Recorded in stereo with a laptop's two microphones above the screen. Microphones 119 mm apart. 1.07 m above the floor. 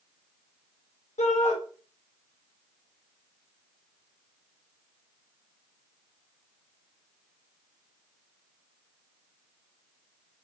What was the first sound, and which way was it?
A shout, 75° left (ahead or behind).